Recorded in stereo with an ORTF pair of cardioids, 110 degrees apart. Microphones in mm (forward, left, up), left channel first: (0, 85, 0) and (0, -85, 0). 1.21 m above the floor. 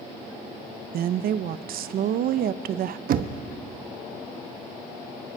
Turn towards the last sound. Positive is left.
turn(degrees=-60)